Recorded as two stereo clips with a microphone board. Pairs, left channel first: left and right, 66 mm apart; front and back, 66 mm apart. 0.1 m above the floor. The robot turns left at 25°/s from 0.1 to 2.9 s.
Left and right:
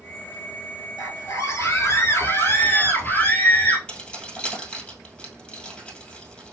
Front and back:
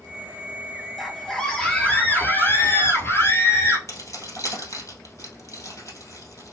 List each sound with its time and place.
1.0 s a scream: 85° left, 1.7 m; by 3.8 s 35° left, 1.7 m
3.9 s keys jangling: 20° left, 2.0 m